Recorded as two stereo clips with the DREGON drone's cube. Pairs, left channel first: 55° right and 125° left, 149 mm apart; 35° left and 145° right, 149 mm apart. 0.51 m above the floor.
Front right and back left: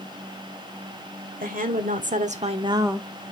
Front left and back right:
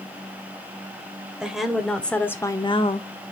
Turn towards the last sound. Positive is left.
turn(degrees=40)